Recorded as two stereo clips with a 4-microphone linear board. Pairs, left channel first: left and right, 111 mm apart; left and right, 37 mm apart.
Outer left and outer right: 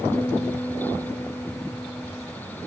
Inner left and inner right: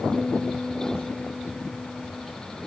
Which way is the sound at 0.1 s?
20° left (ahead or behind).